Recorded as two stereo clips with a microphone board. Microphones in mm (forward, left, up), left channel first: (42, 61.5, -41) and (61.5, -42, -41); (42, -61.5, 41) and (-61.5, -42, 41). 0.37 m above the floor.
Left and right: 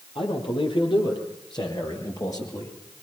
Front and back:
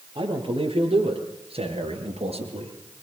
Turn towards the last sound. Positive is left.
turn(degrees=165)